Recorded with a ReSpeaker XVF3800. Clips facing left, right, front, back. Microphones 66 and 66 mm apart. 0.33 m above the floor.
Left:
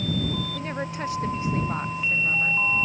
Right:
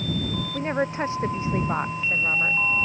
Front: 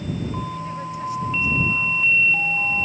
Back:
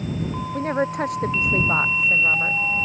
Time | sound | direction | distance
0.5 | a woman speaking | 150° right | ?